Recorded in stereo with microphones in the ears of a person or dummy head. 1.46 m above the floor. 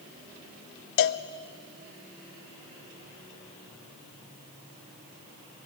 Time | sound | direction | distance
1.0 | a cowbell | 60° left (ahead or behind) | 0.5 m